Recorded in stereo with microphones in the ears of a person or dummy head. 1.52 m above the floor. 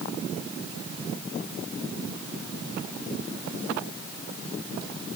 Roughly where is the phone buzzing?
No phone buzzing in this recording.